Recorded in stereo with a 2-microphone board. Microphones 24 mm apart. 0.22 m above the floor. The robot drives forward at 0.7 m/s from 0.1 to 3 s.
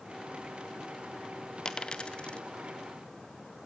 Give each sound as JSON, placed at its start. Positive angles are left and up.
{"t": 1.6, "sound": "a dropped coin", "side_deg": 30, "distance_m": 0.9}